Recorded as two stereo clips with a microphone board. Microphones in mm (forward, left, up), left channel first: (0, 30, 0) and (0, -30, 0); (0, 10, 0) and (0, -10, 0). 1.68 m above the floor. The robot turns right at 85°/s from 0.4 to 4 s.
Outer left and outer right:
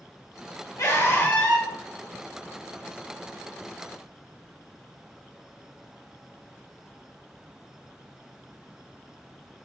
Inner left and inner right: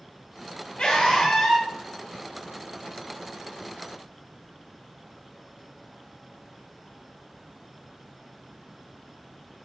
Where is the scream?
105° left, 4.5 m; by 1.7 s straight behind, 4.5 m.